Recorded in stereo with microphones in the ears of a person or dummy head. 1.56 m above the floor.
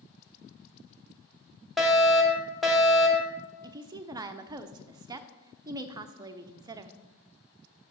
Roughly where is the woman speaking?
Right.